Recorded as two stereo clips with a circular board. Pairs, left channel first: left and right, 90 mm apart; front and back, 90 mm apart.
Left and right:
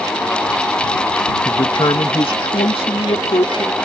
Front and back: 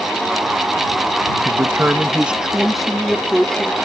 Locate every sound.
1.4 s a man speaking: 125° left; by 3.9 s 80° left